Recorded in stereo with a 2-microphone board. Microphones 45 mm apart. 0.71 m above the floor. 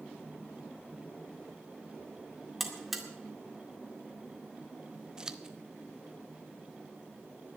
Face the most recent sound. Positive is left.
turn(degrees=-20)  # may be behind; listen again after turning